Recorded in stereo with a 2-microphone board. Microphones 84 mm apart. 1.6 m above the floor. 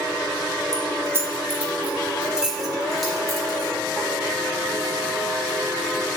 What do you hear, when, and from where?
0.7 s keys jangling: 45° right (ahead or behind), 1.2 m; by 6.0 s 15° left (ahead or behind), 4 m